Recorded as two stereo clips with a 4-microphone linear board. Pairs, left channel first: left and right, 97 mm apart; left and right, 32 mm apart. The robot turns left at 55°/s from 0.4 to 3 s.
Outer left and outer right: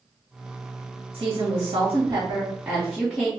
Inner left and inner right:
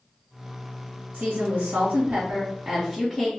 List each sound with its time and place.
1.1 s a woman speaking: 80° right, 1.1 m; by 3.3 s straight behind, 1.1 m